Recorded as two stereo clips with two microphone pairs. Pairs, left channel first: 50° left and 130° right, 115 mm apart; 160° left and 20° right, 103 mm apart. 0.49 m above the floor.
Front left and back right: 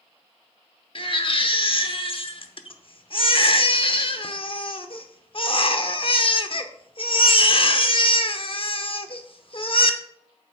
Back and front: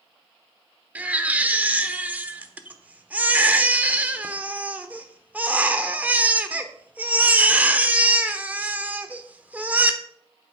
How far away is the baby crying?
About 1.0 m.